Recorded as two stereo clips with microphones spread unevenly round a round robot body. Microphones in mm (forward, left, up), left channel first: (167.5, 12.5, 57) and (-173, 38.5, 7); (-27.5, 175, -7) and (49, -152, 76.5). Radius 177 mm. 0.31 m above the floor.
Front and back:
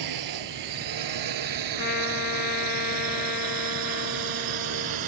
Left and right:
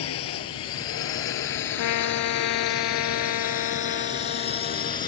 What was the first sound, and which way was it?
A drone, 150° left.